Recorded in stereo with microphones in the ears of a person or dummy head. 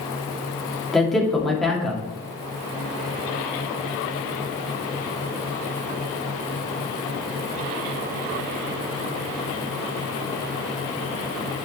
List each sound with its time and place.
0.9 s a man speaking: centre (ahead or behind), 2 m